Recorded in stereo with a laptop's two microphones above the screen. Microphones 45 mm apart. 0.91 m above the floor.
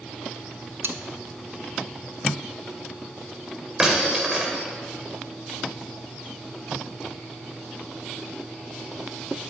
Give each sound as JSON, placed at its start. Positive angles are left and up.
{"t": 0.8, "sound": "cutlery clinking", "side_deg": -60, "distance_m": 0.6}
{"t": 3.8, "sound": "breaking glass", "side_deg": -15, "distance_m": 1.4}